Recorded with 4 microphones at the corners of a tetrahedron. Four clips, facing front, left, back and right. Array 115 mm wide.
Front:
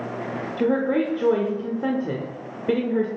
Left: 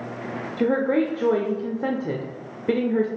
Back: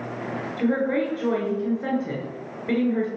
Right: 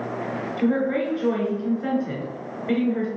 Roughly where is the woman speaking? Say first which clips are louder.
Left 2 dB, front 2 dB; ahead left.